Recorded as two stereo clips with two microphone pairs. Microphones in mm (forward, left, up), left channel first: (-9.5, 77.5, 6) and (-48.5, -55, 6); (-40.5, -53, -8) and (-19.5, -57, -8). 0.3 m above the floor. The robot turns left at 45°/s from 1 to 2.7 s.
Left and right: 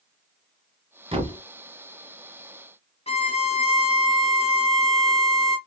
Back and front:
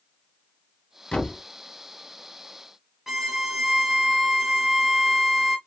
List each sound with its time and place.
1.1 s a thud: 155° right, 1.0 m; by 1.4 s 170° right, 1.0 m
3.1 s a violin: 55° left, 0.7 m